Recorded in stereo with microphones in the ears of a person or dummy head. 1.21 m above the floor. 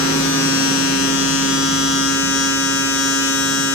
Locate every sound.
0.0 s a machine running: 90° left, 4 m